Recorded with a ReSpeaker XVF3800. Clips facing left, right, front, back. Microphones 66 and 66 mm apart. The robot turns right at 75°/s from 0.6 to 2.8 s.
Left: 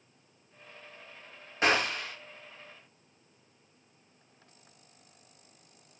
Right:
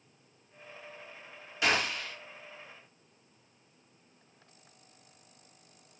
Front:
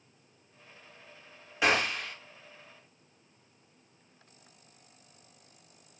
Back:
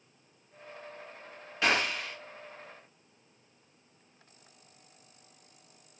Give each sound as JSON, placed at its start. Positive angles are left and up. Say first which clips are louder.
{"t": 1.6, "sound": "a gunshot", "louder": "left 3 dB, front 1 dB", "azimuth_deg": 70, "distance_m": 1.1}